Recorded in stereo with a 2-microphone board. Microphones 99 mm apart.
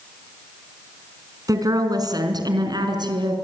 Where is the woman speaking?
40° right (ahead or behind), 4 m; by 3.4 s 50° right (ahead or behind), 5 m.